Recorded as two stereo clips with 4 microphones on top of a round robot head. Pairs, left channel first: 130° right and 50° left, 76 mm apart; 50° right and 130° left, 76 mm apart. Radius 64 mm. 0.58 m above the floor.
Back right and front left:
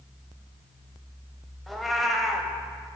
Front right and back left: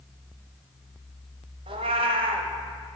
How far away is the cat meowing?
About 0.7 m.